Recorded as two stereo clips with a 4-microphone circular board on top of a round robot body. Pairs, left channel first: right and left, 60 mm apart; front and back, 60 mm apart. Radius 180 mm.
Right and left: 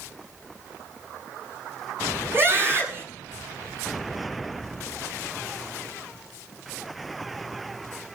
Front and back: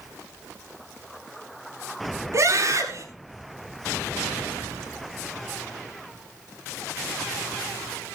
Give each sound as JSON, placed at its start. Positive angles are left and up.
{"t": 2.3, "sound": "a scream", "azimuth_deg": 140, "distance_m": 7.5}